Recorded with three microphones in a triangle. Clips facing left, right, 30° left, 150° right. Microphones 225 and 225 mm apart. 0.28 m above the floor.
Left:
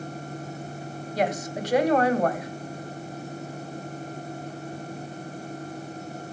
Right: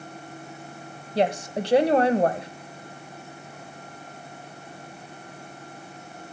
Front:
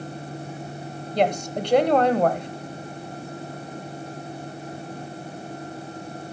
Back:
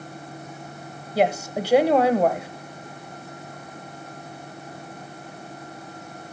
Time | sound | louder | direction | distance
1.1 | a woman speaking | right 3 dB, back 1 dB | 75° right | 1.0 m